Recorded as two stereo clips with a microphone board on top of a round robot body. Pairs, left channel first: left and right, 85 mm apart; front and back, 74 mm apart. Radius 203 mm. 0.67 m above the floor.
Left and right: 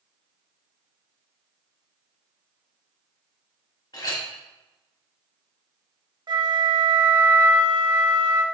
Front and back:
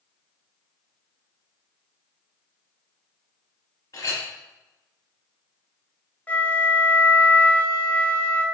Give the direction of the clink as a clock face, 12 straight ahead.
10 o'clock.